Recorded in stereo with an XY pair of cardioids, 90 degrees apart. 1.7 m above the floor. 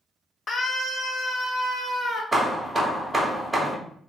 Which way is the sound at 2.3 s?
15° right.